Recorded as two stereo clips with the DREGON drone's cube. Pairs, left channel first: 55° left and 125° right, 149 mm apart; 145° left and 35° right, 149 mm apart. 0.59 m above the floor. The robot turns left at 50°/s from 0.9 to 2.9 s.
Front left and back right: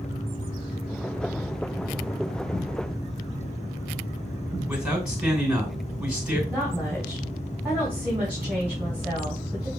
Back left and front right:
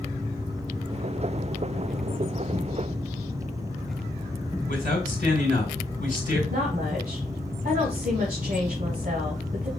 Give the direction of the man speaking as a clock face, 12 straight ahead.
7 o'clock.